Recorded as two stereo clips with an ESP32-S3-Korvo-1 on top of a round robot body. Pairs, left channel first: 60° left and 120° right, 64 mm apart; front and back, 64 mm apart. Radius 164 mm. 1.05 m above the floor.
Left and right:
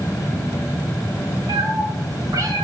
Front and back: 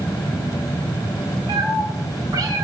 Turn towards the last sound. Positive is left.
turn(degrees=-150)